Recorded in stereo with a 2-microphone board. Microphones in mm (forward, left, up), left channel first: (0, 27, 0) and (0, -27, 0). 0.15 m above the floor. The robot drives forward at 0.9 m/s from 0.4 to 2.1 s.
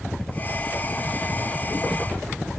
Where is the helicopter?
10° left (ahead or behind).